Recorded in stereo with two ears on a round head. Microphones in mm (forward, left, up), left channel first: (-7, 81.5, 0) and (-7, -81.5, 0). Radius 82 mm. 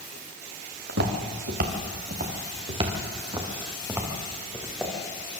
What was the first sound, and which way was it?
Footsteps, 70° right (ahead or behind).